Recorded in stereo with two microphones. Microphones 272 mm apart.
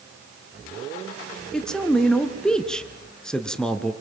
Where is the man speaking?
5° left (ahead or behind), 1.6 m.